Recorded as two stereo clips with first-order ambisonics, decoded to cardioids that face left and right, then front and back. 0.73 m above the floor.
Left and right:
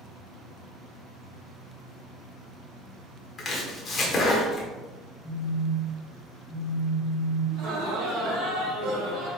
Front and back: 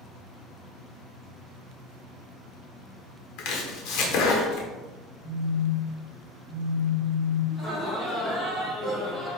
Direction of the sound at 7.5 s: 90° right.